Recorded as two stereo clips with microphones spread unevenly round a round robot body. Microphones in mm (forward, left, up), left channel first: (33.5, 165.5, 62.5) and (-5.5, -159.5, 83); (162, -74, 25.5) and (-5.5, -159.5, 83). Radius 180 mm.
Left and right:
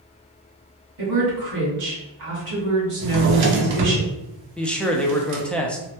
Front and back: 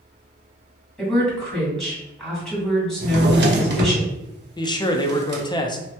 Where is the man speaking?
Straight ahead, 0.6 m.